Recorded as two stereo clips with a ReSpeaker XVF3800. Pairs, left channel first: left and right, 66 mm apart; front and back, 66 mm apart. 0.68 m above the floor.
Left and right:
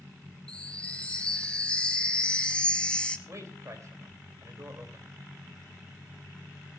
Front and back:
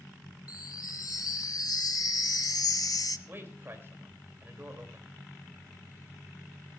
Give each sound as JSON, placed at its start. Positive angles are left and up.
{"t": 0.5, "sound": "a chime", "azimuth_deg": 15, "distance_m": 0.9}
{"t": 3.3, "sound": "a man speaking", "azimuth_deg": -125, "distance_m": 3.0}